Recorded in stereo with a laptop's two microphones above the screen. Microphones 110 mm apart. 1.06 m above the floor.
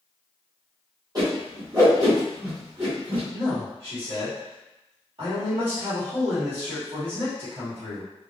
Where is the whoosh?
35° right (ahead or behind), 1.2 m.